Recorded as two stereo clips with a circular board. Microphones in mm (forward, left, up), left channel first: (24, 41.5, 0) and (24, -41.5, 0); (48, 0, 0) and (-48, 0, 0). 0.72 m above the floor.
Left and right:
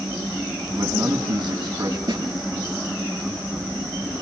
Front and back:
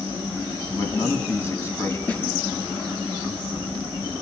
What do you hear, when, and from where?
0.8 s a man speaking: 65° right, 5 m
2.1 s a snare drum: 75° right, 8 m